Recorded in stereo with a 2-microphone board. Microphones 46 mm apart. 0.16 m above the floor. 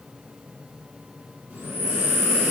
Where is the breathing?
40° right (ahead or behind), 1.3 m.